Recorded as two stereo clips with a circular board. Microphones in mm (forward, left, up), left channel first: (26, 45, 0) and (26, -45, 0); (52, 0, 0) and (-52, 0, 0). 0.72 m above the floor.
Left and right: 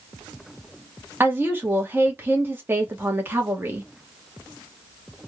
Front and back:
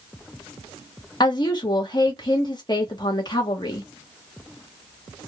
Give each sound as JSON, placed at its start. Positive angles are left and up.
{"t": 1.2, "sound": "a woman speaking", "azimuth_deg": -30, "distance_m": 1.2}